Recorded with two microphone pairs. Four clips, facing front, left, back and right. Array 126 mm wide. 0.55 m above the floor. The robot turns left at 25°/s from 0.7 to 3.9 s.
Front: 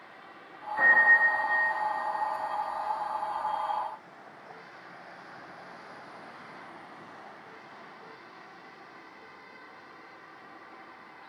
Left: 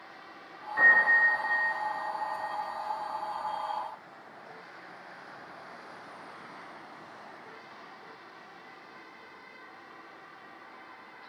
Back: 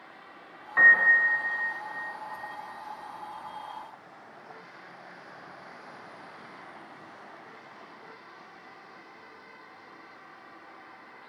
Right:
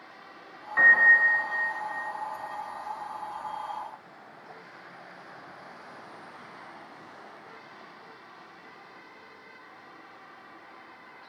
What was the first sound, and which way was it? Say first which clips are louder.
A piano: right 3 dB, back 1 dB; 160° right.